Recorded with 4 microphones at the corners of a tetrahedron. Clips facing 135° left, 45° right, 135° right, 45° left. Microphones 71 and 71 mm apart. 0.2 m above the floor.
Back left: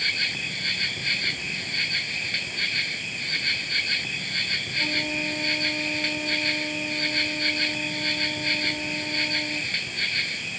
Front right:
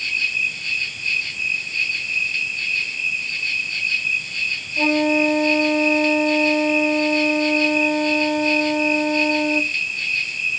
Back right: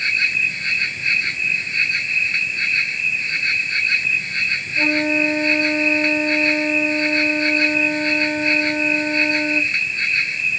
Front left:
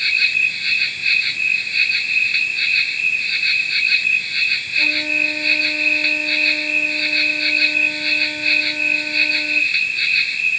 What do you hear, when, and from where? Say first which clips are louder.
0.0 s an insect: front right 5 dB, front left 1 dB; 155° left
4.8 s a flute: front right 13 dB, back right 4 dB; 80° right